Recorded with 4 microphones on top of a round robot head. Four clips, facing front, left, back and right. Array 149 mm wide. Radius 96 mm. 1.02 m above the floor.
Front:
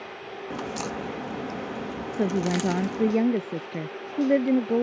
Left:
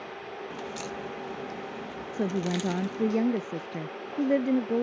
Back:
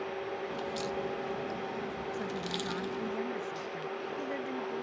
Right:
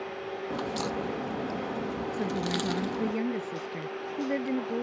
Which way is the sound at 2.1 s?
20° left.